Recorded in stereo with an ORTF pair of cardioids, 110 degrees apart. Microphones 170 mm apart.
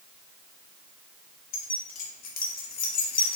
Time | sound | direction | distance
1.5 | keys jangling | 55° left | 0.9 m